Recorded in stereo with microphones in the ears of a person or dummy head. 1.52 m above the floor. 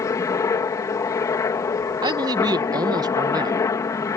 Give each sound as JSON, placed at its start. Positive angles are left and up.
{"t": 0.0, "sound": "a helicopter", "side_deg": 25}
{"t": 2.0, "sound": "a man speaking", "side_deg": -30}